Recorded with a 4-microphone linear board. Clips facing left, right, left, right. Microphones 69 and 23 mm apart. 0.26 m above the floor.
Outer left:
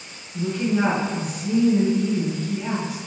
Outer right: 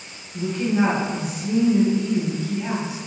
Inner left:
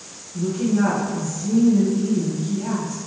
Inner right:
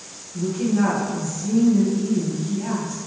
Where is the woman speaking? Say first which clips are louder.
Outer right 1 dB, inner left 1 dB; 20° right (ahead or behind), 1.9 m.